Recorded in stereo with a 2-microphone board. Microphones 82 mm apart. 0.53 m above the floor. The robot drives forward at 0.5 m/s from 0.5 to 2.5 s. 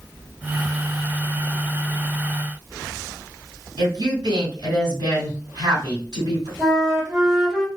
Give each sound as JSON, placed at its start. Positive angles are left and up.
{"t": 3.8, "sound": "a woman speaking", "side_deg": -60, "distance_m": 1.9}
{"t": 6.6, "sound": "a flute", "side_deg": -10, "distance_m": 2.5}